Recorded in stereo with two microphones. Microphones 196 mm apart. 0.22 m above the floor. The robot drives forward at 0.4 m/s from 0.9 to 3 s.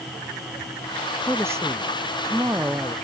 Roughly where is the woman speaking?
Centre.